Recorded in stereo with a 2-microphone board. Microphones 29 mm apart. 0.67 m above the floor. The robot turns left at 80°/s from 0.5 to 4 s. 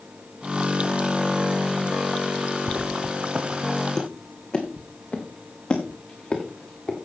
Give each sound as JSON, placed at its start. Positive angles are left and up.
{"t": 2.7, "sound": "footsteps", "side_deg": -75, "distance_m": 2.5}